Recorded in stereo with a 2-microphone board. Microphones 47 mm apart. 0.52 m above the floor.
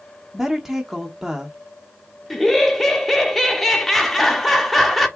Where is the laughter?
5° left (ahead or behind), 1.1 m.